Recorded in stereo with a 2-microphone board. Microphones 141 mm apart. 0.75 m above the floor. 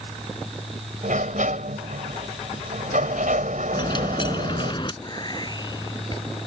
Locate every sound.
1.0 s a sliding door: 65° right (ahead or behind)
3.7 s a dropped coin: 35° left (ahead or behind)
5.0 s whispering: 30° left (ahead or behind)